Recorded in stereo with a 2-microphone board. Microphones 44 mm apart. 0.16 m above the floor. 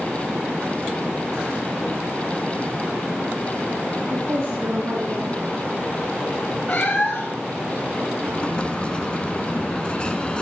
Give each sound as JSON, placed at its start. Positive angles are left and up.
{"t": 4.1, "sound": "a woman speaking", "side_deg": -55, "distance_m": 1.8}
{"t": 6.7, "sound": "a cat meowing", "side_deg": 30, "distance_m": 1.6}
{"t": 8.3, "sound": "an explosion", "side_deg": 20, "distance_m": 0.8}